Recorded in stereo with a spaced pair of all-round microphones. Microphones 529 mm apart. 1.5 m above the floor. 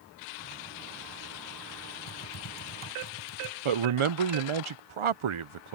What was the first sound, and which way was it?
Typing on a keyboard, 45° left (ahead or behind).